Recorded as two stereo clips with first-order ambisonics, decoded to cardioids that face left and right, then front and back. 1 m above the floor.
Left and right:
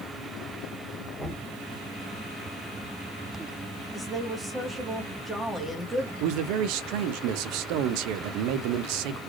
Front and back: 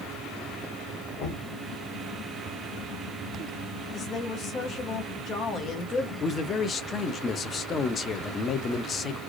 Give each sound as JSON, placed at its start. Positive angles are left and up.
{"t": 1.2, "sound": "knocking", "azimuth_deg": 5, "distance_m": 1.2}
{"t": 3.9, "sound": "a woman speaking", "azimuth_deg": -10, "distance_m": 0.8}
{"t": 6.2, "sound": "a man speaking", "azimuth_deg": -65, "distance_m": 0.5}